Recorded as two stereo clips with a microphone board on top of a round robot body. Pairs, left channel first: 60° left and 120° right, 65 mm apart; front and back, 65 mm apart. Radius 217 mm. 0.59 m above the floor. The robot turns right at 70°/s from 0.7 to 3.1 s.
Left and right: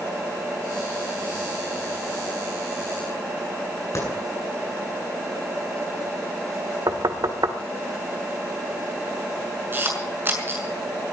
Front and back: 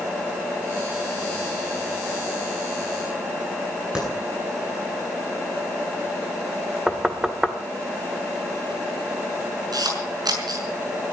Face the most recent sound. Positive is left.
turn(degrees=-175)